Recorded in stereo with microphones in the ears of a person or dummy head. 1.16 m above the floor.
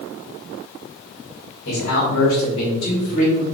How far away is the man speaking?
About 3 m.